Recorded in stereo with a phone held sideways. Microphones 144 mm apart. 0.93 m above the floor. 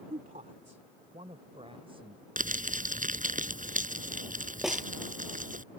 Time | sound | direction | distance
0.1 | a woman speaking | 75° right (ahead or behind) | ?
2.4 | crumpling | 75° right (ahead or behind) | ?
4.6 | a snare drum | 5° right (ahead or behind) | ?